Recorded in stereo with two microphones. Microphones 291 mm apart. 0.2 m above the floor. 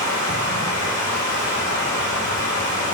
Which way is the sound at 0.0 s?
70° left (ahead or behind).